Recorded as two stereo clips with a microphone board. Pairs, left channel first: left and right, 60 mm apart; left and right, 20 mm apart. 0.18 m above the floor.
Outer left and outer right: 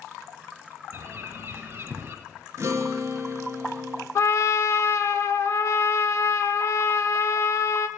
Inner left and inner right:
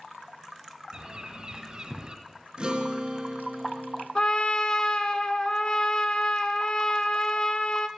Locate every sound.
0.9 s a bird: 40° right (ahead or behind), 1.3 m
2.6 s a guitar: 45° right (ahead or behind), 1.9 m
4.2 s a trumpet: 55° left (ahead or behind), 0.7 m